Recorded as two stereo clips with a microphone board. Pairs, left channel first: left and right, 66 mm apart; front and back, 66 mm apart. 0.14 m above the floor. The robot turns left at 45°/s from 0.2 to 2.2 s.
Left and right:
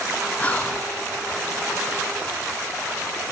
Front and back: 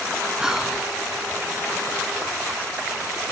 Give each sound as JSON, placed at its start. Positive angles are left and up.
{"t": 0.4, "sound": "whispering", "azimuth_deg": 115, "distance_m": 1.2}